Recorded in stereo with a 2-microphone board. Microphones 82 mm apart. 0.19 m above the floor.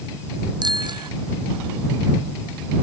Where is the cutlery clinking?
I don't hear cutlery clinking.